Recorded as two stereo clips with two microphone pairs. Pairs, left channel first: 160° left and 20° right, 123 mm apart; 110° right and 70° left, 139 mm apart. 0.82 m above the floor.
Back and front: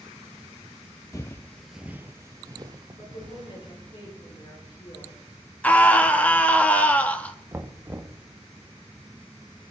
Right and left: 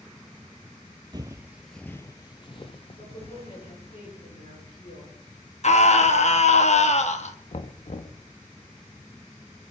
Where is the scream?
120° right, 1.5 m.